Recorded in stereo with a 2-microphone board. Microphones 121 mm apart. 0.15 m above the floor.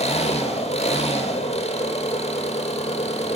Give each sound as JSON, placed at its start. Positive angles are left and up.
{"t": 0.0, "sound": "an engine running", "side_deg": 55, "distance_m": 1.7}